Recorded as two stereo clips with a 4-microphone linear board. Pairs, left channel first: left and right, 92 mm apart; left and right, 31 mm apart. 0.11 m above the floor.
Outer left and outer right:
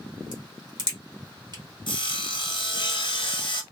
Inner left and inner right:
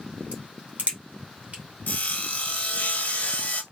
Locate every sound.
0.3 s a crack: 50° right (ahead or behind), 1.9 m
1.9 s sawing: 60° left (ahead or behind), 1.0 m